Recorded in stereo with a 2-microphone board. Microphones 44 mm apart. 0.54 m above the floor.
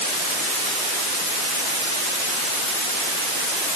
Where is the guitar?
No guitar in this recording.